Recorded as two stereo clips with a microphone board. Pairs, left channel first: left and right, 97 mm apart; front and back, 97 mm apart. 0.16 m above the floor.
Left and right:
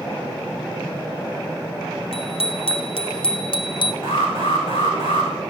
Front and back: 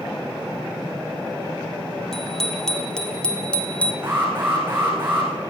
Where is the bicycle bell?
85° left, 3 m; by 3.9 s 75° left, 1.7 m.